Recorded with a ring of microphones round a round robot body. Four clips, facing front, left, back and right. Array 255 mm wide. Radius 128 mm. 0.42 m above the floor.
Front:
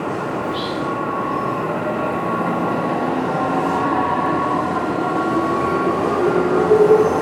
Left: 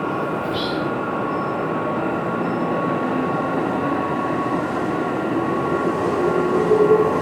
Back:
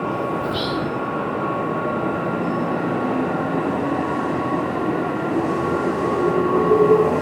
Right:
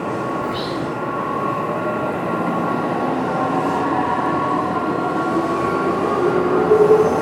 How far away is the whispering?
About 3.5 m.